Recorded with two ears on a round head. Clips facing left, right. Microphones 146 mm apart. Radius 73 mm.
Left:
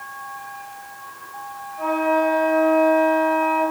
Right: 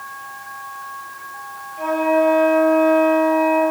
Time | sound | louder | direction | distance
1.8 | a flute | right 3 dB | 30° right (ahead or behind) | 4.5 m